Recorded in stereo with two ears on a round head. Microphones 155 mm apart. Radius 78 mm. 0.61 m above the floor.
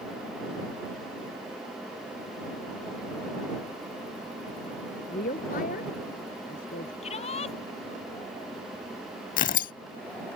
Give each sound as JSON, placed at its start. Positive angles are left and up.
{"t": 5.1, "sound": "a woman speaking", "side_deg": 55}
{"t": 7.0, "sound": "a shout", "side_deg": 40}
{"t": 9.4, "sound": "tearing paper", "side_deg": 55}